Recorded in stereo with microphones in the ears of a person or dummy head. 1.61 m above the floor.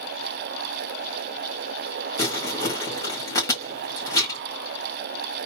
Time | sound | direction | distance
2.2 | crumpling | 20° left (ahead or behind) | 1.8 m